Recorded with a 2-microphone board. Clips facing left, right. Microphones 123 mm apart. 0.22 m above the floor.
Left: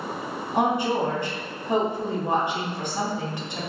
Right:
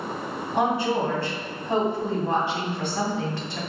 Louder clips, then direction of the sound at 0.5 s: Even; 20° left (ahead or behind).